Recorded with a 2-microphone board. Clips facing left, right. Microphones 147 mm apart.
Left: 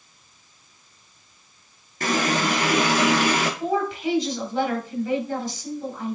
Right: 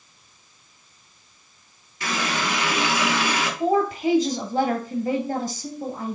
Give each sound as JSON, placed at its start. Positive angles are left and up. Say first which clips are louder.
{"t": 2.0, "sound": "a running tap", "louder": "left 4 dB", "side_deg": 50, "distance_m": 1.7}
{"t": 3.6, "sound": "a woman speaking", "louder": "right 3 dB", "side_deg": -45, "distance_m": 2.0}